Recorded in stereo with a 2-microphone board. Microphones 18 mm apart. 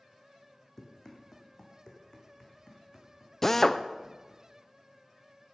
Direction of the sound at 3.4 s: 20° left (ahead or behind).